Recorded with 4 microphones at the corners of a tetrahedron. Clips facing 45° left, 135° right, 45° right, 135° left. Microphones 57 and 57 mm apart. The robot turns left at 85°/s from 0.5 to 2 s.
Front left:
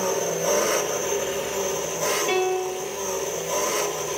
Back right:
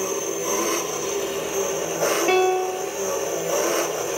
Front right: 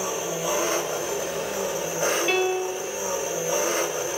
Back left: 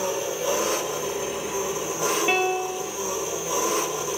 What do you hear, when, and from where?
0.0 s an engine running: 30° left, 3 m; by 4.2 s 100° right, 3 m
2.3 s a piano: 155° right, 0.8 m